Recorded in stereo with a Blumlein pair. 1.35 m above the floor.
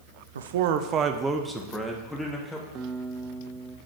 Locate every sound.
0.3 s a man speaking: 65° right, 0.7 m; by 2.6 s 10° left, 1.9 m
2.8 s a guitar: 25° right, 1.0 m